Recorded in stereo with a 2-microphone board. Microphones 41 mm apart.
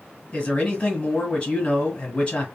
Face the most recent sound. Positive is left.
turn(degrees=25)  # may be behind; listen again after turning